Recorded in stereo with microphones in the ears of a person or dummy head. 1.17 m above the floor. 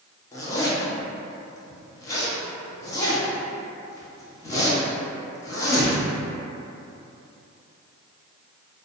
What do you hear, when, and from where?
0.3 s a zipper: 15° left (ahead or behind), 0.6 m